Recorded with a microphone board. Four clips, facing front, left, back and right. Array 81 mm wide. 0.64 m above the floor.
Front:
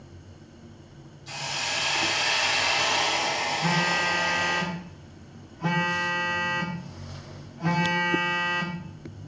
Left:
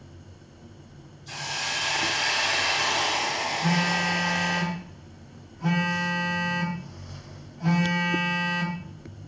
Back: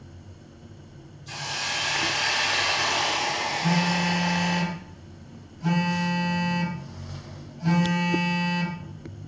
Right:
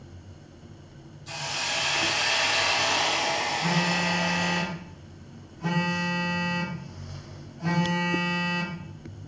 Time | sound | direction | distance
1.3 | a hiss | 50° right | 1.8 m
3.6 | a phone buzzing | 5° right | 0.6 m